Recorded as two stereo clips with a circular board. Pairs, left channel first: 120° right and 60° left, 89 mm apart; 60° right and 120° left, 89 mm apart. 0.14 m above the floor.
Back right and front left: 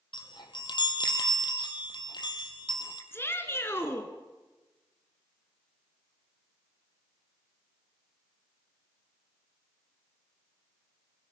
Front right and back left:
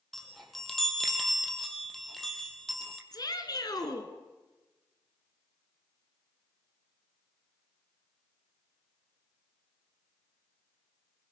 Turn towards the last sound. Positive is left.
turn(degrees=-70)